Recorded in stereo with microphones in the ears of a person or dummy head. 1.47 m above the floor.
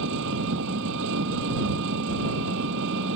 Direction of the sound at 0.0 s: 70° right (ahead or behind).